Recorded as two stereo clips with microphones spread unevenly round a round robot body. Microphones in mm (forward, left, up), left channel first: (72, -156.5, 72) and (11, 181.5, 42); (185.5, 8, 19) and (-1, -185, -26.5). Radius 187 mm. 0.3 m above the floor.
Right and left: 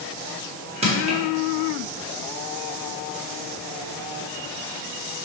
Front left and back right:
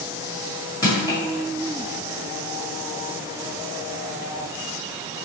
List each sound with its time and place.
0.8 s crushing: 130° left, 1.4 m